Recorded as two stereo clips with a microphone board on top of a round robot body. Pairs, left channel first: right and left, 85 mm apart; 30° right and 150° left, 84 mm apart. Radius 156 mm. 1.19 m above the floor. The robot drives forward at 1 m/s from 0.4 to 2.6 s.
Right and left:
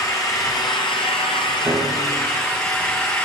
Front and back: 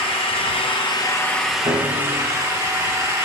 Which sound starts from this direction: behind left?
A piano, at 1.6 s.